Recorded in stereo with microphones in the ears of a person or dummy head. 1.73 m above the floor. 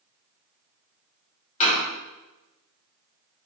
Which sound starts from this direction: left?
A door slam, at 1.6 s.